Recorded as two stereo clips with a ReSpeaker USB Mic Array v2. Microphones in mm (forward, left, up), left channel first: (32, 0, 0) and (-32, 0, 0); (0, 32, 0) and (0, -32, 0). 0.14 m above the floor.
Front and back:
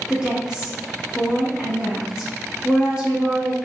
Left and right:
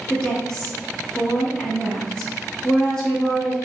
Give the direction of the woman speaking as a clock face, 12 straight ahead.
7 o'clock.